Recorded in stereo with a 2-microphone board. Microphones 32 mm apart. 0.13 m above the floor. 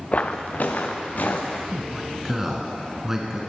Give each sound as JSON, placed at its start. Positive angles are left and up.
{"t": 0.1, "sound": "footsteps", "side_deg": 50, "distance_m": 0.7}
{"t": 1.7, "sound": "a man speaking", "side_deg": -10, "distance_m": 1.1}